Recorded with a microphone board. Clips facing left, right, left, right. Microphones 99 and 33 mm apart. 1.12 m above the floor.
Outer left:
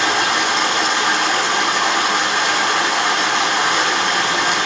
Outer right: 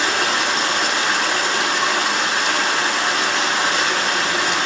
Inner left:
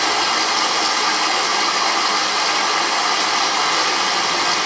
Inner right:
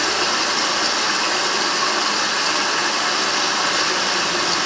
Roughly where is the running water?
Left.